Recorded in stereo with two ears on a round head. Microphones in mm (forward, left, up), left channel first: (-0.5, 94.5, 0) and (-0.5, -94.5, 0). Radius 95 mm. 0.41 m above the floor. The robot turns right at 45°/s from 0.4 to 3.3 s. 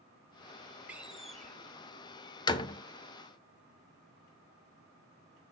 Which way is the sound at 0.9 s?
10° right (ahead or behind).